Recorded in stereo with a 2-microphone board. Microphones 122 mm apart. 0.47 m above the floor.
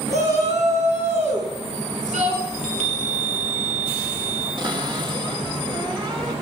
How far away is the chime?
About 3 m.